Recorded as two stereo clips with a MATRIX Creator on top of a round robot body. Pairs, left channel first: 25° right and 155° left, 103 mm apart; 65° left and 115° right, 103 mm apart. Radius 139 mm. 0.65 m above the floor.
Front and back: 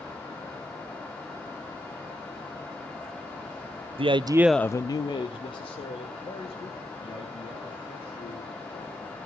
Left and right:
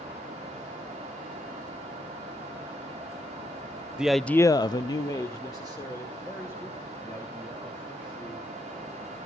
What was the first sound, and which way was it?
A man speaking, 165° left.